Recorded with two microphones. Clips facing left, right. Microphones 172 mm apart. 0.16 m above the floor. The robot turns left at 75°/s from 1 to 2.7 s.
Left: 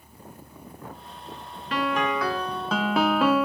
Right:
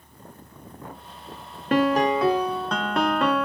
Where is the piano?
110° right, 0.6 m; by 3.5 s 175° left, 0.6 m.